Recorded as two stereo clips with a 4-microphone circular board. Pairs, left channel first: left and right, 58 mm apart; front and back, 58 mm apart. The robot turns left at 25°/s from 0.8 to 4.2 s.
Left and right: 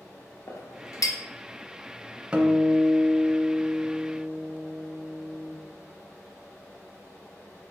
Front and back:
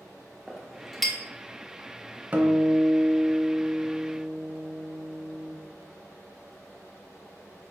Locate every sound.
0.5 s a clink: 95° left, 0.7 m; by 1.2 s 85° left, 0.7 m
2.3 s a guitar: 150° right, 0.6 m; by 5.5 s 165° left, 0.6 m